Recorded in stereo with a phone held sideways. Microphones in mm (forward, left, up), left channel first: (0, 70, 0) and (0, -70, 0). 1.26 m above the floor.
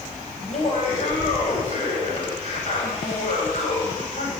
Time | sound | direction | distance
0.4 | laughter | 50° left (ahead or behind) | 7.5 m